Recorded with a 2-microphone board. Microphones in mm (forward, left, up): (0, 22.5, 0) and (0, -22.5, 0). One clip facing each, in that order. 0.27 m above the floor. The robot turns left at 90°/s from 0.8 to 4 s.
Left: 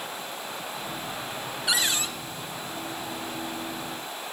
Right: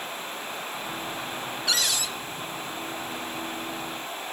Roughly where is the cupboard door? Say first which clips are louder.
Left 1 dB; behind.